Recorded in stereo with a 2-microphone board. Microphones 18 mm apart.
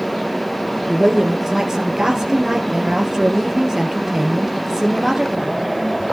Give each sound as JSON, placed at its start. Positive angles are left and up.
{"t": 0.9, "sound": "a woman speaking", "side_deg": -25, "distance_m": 2.5}